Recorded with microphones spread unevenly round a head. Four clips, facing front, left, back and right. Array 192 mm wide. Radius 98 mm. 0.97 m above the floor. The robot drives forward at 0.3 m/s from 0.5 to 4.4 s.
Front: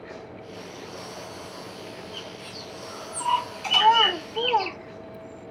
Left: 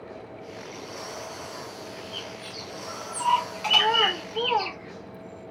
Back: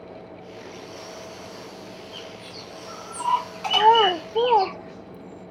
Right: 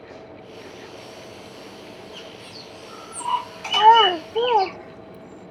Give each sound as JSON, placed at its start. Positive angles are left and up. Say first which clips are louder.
{"t": 2.1, "sound": "a bird", "louder": "left 1 dB, even", "azimuth_deg": 160, "distance_m": 6.0}
{"t": 3.7, "sound": "a child speaking", "louder": "right 12 dB, back 3 dB", "azimuth_deg": -135, "distance_m": 0.6}